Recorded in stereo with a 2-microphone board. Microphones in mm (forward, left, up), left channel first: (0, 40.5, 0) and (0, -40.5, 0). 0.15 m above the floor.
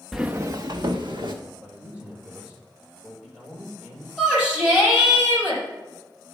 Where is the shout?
10° right (ahead or behind), 5 m.